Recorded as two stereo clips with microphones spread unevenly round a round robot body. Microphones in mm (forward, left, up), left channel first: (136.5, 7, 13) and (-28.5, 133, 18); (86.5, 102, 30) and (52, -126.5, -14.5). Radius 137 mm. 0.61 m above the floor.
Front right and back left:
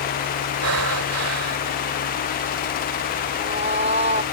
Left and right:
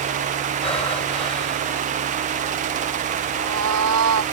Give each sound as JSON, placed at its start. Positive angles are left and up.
{"t": 0.6, "sound": "breathing", "azimuth_deg": 155}
{"t": 3.3, "sound": "a cat meowing", "azimuth_deg": -145}